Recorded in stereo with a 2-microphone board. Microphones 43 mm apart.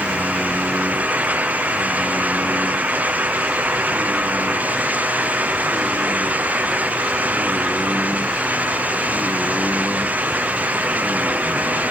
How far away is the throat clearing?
No throat clearing in this recording.